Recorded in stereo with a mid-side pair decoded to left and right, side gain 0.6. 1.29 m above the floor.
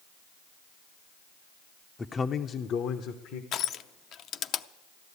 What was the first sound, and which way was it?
A man speaking, 20° left.